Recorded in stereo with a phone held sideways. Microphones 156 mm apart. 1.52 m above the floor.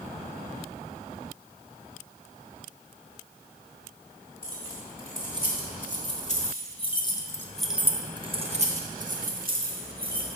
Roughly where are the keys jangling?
Left.